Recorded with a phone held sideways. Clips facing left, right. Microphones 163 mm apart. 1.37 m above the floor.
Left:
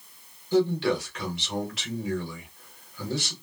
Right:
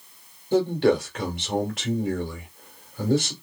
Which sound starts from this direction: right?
A man speaking, at 0.5 s.